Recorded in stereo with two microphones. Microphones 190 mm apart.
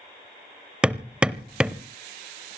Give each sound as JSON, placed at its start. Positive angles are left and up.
{"t": 0.8, "sound": "hammering", "side_deg": -5, "distance_m": 0.6}